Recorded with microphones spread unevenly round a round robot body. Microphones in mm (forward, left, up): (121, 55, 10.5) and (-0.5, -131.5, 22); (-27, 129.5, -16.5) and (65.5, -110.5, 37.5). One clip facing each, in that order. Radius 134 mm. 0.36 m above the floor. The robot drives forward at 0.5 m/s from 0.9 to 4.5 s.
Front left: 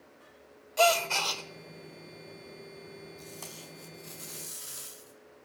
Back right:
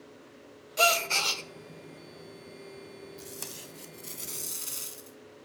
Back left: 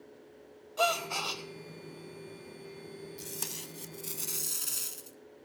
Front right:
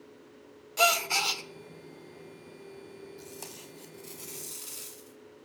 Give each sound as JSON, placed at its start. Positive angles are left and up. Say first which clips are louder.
{"t": 0.8, "sound": "a gasp", "louder": "front left 3 dB, front right 2 dB", "azimuth_deg": -70, "distance_m": 0.9}
{"t": 3.2, "sound": "tape being pulled", "louder": "back right 2 dB, back left 1 dB", "azimuth_deg": 170, "distance_m": 0.7}